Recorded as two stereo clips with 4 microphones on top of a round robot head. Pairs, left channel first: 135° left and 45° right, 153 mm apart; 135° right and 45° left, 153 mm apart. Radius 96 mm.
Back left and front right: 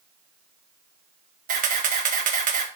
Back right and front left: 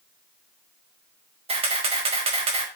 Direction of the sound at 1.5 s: 10° right.